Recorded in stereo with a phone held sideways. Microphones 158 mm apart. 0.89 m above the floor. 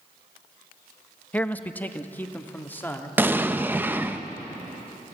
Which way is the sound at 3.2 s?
10° right (ahead or behind).